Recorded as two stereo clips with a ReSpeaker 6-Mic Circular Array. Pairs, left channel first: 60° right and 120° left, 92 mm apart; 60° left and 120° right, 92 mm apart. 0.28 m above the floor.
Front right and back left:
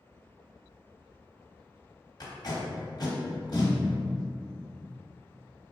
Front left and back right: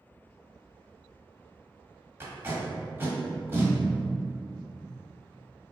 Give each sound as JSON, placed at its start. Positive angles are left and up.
{"t": 2.2, "sound": "tape being pulled", "azimuth_deg": -70, "distance_m": 1.2}